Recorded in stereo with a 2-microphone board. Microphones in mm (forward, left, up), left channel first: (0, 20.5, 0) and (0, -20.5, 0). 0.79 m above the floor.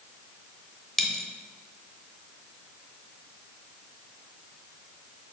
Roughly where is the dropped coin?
Centre.